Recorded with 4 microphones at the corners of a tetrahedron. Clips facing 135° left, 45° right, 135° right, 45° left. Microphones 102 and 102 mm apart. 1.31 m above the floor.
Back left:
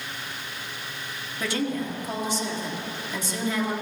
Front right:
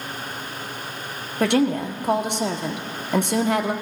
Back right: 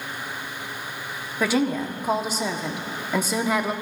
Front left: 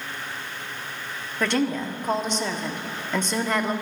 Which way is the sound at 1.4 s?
55° right.